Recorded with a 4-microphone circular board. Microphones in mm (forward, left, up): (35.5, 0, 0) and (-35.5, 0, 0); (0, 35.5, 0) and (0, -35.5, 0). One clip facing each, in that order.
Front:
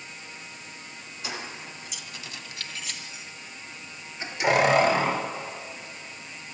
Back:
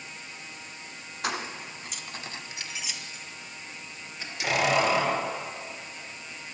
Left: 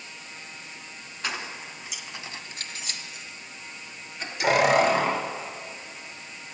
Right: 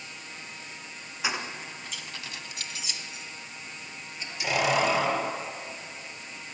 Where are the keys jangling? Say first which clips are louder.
Back 5 dB, right 1 dB; 170° right, 1.9 m; by 5.2 s 55° left, 4 m.